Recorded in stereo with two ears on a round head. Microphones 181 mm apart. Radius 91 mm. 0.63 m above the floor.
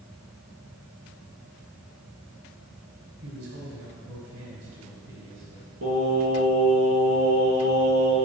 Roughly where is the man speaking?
Right.